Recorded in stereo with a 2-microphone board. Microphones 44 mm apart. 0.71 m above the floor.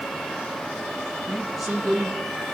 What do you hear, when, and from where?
1.3 s a woman speaking: 5° right (ahead or behind), 1.0 m